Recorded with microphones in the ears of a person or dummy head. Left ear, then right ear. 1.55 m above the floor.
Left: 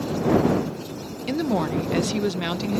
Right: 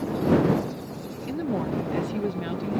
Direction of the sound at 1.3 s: 45° left (ahead or behind).